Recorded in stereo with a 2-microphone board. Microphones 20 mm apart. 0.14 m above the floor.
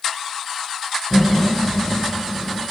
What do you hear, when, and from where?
1.1 s laughter: 10° left (ahead or behind), 2.5 m